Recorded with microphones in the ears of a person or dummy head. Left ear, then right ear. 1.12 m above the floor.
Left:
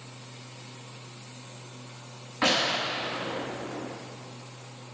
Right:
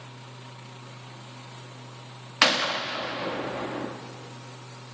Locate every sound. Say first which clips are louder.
0.0 s a fan: right 1 dB; 15° left (ahead or behind), 1.4 m
2.4 s a gunshot: right 2 dB; 50° right (ahead or behind), 0.7 m